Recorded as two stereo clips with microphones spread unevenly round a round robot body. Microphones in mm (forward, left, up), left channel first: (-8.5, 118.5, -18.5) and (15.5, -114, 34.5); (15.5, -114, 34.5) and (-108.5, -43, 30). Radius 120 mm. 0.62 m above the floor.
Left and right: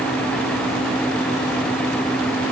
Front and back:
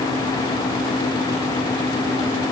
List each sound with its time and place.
Only background noise.